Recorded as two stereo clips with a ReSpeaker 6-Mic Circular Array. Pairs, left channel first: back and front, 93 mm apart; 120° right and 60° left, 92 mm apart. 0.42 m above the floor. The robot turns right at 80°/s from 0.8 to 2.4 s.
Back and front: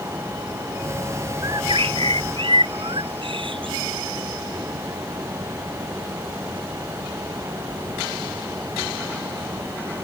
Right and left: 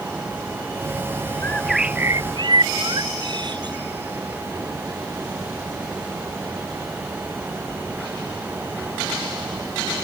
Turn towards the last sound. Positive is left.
turn(degrees=25)